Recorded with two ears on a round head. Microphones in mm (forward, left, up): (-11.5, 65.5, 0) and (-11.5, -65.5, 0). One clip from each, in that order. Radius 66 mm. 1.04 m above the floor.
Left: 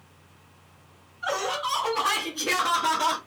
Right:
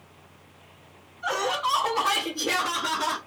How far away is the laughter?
About 3 m.